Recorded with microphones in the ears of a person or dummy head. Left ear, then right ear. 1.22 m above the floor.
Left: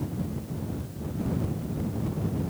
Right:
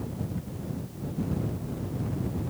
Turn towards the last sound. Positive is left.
No sound to turn to.